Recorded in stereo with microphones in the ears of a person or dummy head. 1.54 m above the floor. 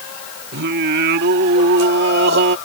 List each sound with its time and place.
0.5 s singing: 60° right (ahead or behind)